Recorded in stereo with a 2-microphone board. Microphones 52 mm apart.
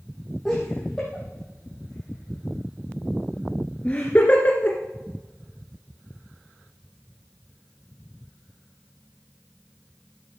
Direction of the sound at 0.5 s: 10° left (ahead or behind).